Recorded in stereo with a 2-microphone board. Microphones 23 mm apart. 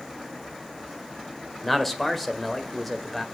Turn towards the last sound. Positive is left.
turn(degrees=10)  # may be behind; listen again after turning